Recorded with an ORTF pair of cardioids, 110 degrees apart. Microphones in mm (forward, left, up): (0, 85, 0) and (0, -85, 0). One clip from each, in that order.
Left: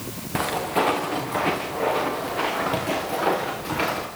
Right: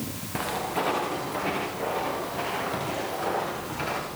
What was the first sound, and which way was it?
Footsteps, 30° left.